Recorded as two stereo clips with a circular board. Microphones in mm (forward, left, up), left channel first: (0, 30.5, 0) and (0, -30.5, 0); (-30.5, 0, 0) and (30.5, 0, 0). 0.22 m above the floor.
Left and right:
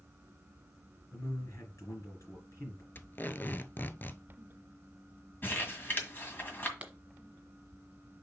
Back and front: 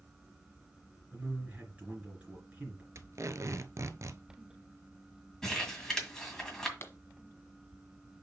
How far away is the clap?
About 1.3 m.